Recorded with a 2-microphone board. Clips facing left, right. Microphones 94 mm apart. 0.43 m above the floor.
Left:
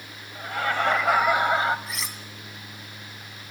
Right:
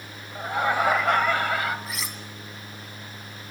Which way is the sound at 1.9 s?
Centre (ahead or behind).